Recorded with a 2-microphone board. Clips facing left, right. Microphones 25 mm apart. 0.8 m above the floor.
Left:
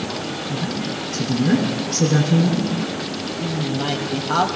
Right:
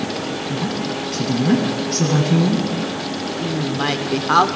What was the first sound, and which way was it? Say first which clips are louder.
A woman speaking: right 2 dB; 80° right.